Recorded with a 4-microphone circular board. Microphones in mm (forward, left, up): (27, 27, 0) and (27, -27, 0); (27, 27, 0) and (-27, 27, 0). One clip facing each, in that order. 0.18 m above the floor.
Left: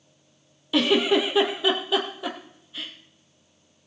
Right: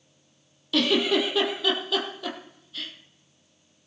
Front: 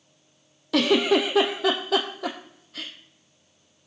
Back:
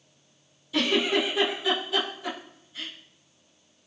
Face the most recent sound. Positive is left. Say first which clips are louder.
# left 2 dB, front 4 dB
turn(degrees=15)